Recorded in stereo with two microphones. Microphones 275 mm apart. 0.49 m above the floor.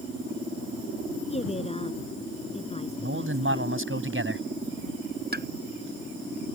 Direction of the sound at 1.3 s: 25° left (ahead or behind).